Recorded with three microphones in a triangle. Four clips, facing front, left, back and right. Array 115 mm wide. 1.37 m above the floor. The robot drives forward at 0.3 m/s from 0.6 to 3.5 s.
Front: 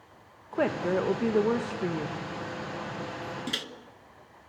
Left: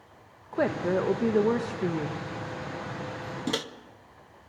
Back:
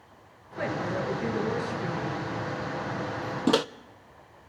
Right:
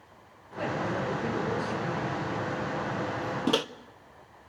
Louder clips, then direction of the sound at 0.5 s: Left 5 dB, front 4 dB; 50° left.